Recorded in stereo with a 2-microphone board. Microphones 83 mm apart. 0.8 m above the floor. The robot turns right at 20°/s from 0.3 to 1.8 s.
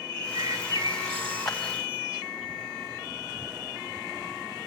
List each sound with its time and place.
0.1 s a bird: 75° right (ahead or behind), 6 m; by 2.5 s 70° right (ahead or behind), 6 m
1.4 s a clap: 5° left (ahead or behind), 3.5 m; by 1.6 s centre (ahead or behind), 3.5 m